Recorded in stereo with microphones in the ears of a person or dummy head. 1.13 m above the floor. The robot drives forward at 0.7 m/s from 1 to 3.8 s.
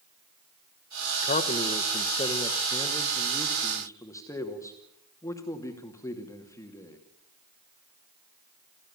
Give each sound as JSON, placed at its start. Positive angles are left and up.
{"t": 1.2, "sound": "a man speaking", "side_deg": 35, "distance_m": 1.0}